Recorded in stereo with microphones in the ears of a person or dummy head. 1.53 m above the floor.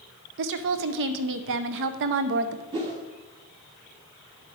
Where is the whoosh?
25° right (ahead or behind), 1.3 m.